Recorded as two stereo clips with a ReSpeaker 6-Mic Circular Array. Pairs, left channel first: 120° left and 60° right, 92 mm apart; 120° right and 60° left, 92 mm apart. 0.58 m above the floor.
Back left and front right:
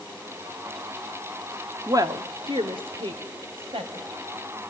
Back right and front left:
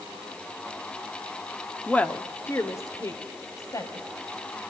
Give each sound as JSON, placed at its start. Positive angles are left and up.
{"t": 1.9, "sound": "a woman speaking", "azimuth_deg": -50, "distance_m": 0.9}